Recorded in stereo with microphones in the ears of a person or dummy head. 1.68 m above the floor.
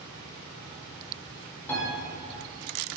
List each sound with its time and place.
1.7 s a piano: 10° left (ahead or behind), 2.5 m